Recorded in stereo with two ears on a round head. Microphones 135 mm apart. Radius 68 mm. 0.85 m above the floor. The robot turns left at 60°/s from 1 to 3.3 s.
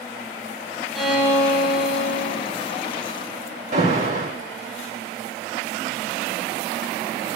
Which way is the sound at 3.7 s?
50° right (ahead or behind).